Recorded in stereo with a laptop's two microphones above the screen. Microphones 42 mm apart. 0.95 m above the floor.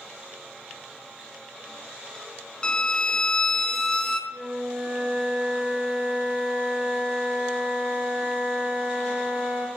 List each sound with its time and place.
2.6 s a violin: 20° left (ahead or behind), 0.7 m
4.3 s a flute: 55° right (ahead or behind), 4 m